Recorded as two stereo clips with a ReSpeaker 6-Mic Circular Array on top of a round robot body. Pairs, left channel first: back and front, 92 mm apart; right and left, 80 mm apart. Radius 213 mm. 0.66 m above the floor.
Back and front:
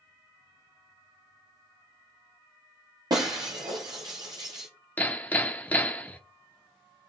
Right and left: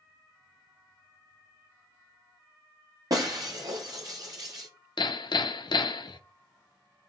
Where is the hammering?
105° right, 0.9 m.